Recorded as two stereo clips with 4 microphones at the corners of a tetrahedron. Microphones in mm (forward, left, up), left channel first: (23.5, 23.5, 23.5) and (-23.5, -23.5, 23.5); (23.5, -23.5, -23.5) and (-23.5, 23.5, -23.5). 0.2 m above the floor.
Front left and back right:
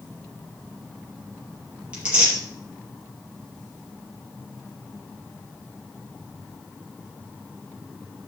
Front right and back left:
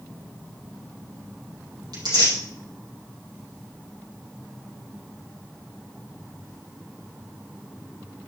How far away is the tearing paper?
About 4.5 m.